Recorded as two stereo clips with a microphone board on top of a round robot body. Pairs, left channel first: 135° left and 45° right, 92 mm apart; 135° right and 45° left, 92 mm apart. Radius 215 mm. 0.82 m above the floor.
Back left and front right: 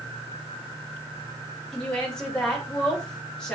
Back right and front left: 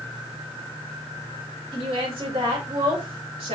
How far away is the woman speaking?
About 4.5 m.